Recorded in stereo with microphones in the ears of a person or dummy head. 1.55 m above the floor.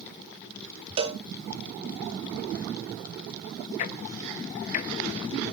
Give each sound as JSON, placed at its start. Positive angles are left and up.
{"t": 1.0, "sound": "a cowbell", "side_deg": -25, "distance_m": 0.9}
{"t": 3.8, "sound": "ticking", "side_deg": 45, "distance_m": 0.8}